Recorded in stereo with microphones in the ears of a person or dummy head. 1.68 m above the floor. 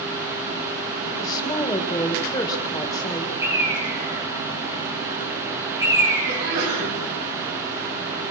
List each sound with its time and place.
1.2 s a woman speaking: 25° left (ahead or behind), 2.5 m
3.4 s a bird: 20° right (ahead or behind), 6 m
6.3 s a sneeze: 65° right (ahead or behind), 8.5 m